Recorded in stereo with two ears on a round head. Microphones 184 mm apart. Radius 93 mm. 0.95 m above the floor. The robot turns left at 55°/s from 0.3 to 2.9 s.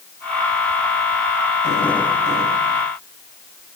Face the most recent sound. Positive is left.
No sound to turn to.